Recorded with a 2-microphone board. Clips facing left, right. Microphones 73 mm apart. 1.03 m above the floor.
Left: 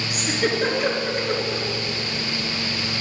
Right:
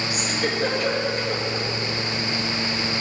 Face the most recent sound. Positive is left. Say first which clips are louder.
# left 5 dB
turn(degrees=55)  # may be behind; listen again after turning